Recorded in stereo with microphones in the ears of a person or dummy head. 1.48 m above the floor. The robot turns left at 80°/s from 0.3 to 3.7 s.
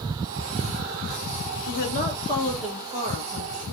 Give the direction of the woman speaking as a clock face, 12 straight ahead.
10 o'clock.